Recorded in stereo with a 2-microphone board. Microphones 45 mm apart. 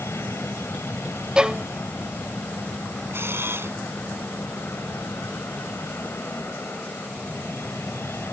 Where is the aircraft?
70° left (ahead or behind); by 8.3 s 60° left (ahead or behind).